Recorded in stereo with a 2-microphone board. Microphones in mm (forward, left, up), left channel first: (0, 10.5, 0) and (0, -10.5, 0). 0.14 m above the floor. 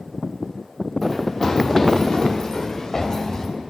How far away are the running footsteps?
About 1.3 m.